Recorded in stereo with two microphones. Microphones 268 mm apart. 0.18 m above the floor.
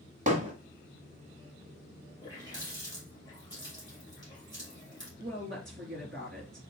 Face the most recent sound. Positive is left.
turn(degrees=-45)  # may be behind; listen again after turning